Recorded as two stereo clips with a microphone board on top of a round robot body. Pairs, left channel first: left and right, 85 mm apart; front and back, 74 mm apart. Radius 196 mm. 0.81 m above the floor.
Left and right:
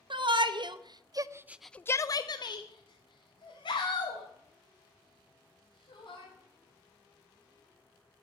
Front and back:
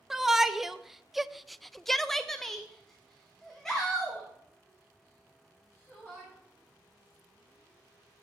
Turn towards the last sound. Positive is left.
turn(degrees=85)